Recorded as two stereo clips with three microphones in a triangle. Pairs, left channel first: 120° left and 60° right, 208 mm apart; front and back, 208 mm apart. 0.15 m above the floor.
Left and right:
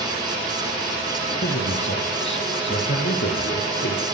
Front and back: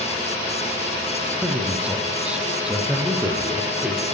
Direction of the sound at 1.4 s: 95° left.